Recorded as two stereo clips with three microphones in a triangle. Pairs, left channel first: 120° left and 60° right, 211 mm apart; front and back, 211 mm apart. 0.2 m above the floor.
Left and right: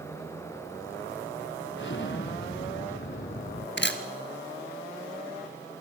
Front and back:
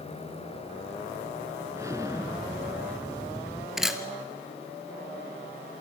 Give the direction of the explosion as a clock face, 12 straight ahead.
8 o'clock.